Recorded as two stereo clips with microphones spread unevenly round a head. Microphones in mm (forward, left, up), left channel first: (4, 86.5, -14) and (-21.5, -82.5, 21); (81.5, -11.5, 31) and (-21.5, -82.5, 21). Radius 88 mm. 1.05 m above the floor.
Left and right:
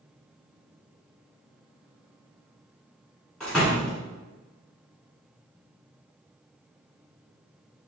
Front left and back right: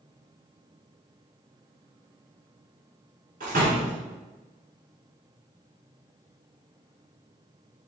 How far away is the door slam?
About 1.6 m.